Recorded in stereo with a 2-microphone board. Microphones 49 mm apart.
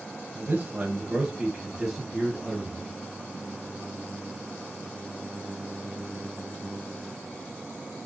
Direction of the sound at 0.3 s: 30° right (ahead or behind).